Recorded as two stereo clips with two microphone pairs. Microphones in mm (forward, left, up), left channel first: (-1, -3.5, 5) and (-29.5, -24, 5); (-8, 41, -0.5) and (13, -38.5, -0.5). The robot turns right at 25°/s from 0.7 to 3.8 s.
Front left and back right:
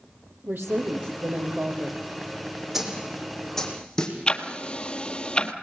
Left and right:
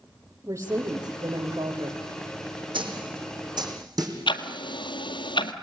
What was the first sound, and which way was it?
A woman speaking, 130° right.